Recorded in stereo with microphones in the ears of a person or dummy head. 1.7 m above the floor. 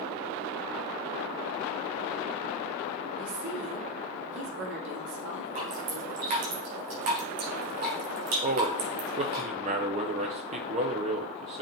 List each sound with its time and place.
3.2 s a woman speaking: 65° right (ahead or behind), 3 m
5.5 s dripping: 40° right (ahead or behind), 2.5 m
8.4 s a man speaking: 35° right (ahead or behind), 0.9 m